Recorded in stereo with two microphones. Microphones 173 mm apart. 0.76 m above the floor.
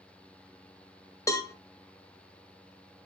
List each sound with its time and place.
1.3 s a cowbell: 20° left (ahead or behind), 0.8 m